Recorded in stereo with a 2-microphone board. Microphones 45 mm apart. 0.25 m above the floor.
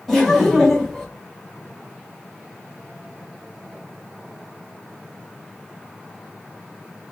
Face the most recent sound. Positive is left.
turn(degrees=0)  # may be behind; listen again after turning